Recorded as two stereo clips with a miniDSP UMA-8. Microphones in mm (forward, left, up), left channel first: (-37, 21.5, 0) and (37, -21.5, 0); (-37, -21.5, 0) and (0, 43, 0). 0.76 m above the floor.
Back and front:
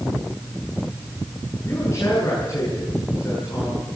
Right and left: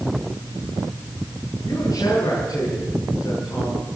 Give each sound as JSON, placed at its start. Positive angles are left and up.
{"t": 1.6, "sound": "a man speaking", "azimuth_deg": -155, "distance_m": 9.5}